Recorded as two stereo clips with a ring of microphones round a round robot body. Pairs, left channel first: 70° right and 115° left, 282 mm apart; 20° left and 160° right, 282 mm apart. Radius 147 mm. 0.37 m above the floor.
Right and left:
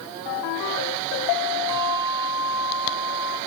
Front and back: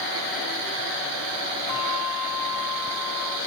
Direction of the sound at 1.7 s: 35° left.